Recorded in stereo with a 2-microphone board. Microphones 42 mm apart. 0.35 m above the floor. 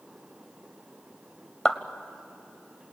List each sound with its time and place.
1.6 s a clap: 10° left (ahead or behind), 1.3 m